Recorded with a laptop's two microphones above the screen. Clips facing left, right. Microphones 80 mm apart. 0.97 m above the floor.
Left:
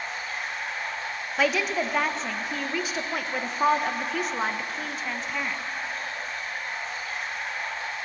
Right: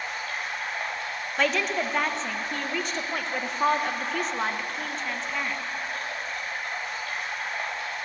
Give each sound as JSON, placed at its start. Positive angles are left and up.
{"t": 0.0, "sound": "running water", "side_deg": -65, "distance_m": 3.0}
{"t": 1.4, "sound": "a woman speaking", "side_deg": 5, "distance_m": 0.5}